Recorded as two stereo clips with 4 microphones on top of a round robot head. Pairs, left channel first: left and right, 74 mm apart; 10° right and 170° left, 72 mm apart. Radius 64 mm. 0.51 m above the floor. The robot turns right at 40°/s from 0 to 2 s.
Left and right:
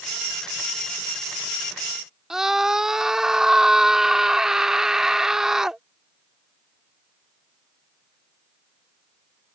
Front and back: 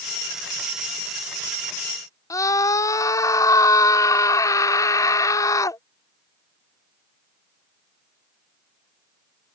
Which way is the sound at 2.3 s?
10° right.